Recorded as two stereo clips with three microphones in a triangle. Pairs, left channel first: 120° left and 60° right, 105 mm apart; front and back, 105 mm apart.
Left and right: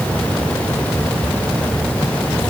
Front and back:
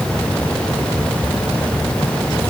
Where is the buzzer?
I don't hear a buzzer.